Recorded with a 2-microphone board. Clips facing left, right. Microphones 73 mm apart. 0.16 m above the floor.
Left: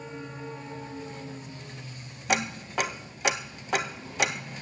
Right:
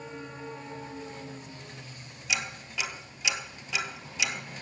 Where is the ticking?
55° left (ahead or behind), 0.7 m.